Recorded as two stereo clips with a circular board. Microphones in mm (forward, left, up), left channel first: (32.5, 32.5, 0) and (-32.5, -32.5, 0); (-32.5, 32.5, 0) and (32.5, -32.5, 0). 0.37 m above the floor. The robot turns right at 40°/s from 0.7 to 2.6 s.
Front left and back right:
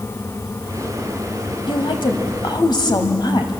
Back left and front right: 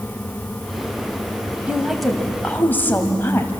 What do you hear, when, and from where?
1.7 s a woman speaking: 30° left, 2 m; by 3.5 s 70° left, 2 m